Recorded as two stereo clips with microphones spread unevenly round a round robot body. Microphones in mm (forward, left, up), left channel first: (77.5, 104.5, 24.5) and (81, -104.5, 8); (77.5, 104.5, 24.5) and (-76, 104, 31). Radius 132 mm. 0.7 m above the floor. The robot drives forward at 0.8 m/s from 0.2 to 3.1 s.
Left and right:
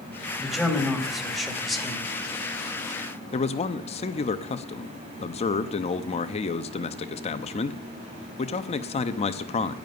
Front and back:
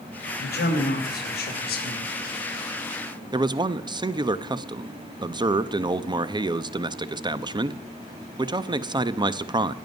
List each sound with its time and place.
0.4 s a man speaking: straight ahead, 3.5 m
3.3 s a man speaking: 140° left, 0.7 m